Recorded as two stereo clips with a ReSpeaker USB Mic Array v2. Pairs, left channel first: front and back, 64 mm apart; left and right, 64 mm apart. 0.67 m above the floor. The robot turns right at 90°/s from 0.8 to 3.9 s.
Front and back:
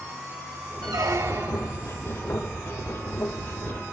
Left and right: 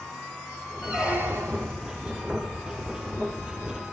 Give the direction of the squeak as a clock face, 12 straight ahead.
6 o'clock.